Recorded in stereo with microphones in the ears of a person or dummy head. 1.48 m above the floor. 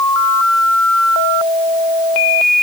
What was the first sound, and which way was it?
Only background noise.